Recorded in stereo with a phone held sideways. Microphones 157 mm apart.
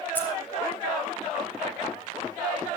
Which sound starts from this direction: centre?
Keys jangling, at 0.1 s.